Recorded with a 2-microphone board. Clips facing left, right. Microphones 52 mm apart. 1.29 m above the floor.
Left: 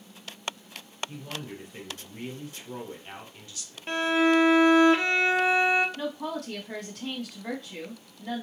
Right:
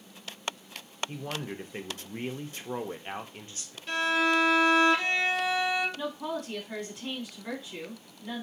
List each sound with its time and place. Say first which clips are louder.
1.1 s a man speaking: right 2 dB; 35° right (ahead or behind), 0.5 m
3.9 s a violin: left 3 dB; 35° left (ahead or behind), 0.5 m
6.0 s a woman speaking: left 1 dB; 80° left, 1.6 m